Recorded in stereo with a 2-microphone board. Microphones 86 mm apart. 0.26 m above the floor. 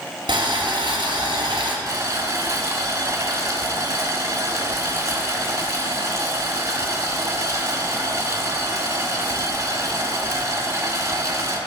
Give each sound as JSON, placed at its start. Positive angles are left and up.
{"t": 0.3, "sound": "boiling", "side_deg": -65, "distance_m": 1.8}
{"t": 1.9, "sound": "boiling", "side_deg": -35, "distance_m": 1.4}